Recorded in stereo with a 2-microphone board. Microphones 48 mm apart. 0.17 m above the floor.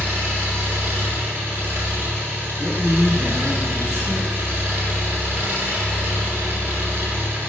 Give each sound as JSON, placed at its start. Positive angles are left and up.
{"t": 0.0, "sound": "an engine running", "side_deg": -50, "distance_m": 1.2}
{"t": 2.6, "sound": "a man speaking", "side_deg": -15, "distance_m": 1.6}